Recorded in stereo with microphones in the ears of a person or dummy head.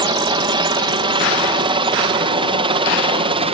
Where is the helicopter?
20° right (ahead or behind); by 3.5 s 25° right (ahead or behind).